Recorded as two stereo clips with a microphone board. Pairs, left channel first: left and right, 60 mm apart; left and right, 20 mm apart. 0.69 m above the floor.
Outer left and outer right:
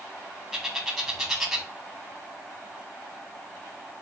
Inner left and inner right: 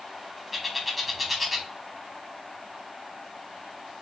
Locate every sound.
0.5 s a bird: 5° right (ahead or behind), 1.3 m